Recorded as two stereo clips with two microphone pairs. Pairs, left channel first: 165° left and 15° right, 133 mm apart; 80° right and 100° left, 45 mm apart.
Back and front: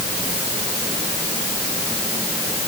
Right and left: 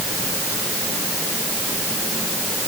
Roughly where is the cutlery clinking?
I don't hear cutlery clinking.